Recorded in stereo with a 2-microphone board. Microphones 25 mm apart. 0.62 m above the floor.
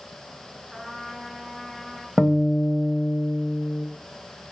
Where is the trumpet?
Centre (ahead or behind), 8 m.